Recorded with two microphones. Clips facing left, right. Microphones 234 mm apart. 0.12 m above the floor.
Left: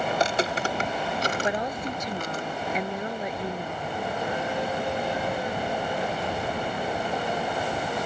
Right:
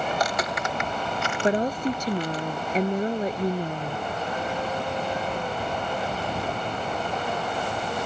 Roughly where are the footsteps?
Left.